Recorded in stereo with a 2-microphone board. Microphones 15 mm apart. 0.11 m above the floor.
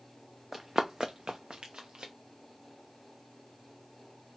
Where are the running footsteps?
20° right (ahead or behind), 0.6 m; by 2.1 s 75° right (ahead or behind), 1.0 m.